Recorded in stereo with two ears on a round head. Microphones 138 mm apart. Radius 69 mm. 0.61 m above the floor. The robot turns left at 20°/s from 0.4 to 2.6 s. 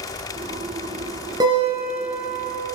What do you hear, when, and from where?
1.4 s a guitar: 30° right (ahead or behind), 2 m; by 2.4 s 5° right (ahead or behind), 2 m